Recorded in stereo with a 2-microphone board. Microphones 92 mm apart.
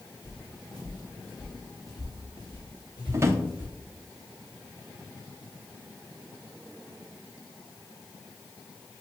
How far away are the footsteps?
About 1.2 m.